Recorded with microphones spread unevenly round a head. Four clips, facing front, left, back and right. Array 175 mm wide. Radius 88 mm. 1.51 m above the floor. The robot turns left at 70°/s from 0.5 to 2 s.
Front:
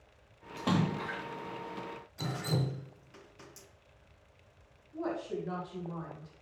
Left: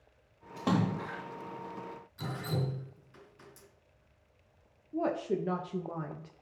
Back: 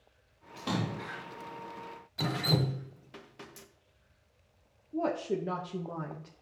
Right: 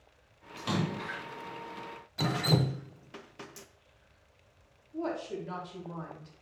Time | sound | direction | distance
0.6 | a splash | 65° left | 2.5 m
2.2 | dripping | 115° right | 0.9 m
4.9 | a woman speaking | 145° left | 1.2 m